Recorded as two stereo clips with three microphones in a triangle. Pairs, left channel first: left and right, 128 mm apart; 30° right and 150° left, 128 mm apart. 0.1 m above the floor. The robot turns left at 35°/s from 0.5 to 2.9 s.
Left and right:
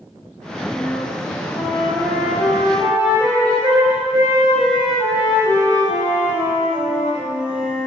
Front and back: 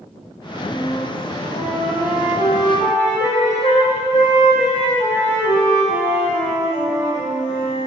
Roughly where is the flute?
Ahead left.